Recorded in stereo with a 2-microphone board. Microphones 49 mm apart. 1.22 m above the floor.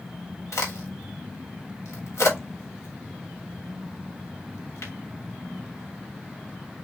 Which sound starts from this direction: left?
A crack, at 0.5 s.